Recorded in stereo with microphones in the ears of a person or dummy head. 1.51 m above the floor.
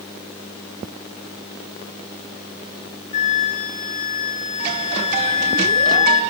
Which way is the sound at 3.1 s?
40° left (ahead or behind).